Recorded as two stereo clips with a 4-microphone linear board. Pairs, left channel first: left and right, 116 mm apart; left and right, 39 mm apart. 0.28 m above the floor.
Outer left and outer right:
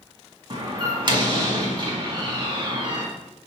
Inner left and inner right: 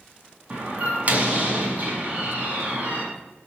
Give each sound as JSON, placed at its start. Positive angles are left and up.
{"t": 0.5, "sound": "a door slam", "side_deg": -40, "distance_m": 1.8}